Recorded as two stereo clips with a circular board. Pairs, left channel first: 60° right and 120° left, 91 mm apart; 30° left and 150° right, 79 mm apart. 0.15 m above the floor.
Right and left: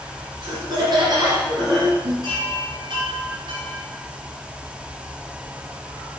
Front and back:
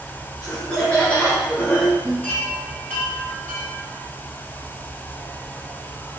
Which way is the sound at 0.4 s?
110° left.